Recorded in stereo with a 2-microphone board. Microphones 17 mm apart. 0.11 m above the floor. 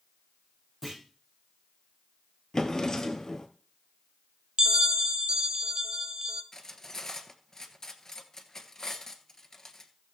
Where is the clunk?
Centre (ahead or behind), 6.5 m.